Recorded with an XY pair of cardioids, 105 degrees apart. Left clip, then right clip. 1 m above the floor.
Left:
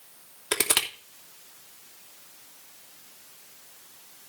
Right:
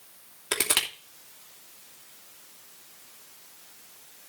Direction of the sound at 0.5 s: 5° left.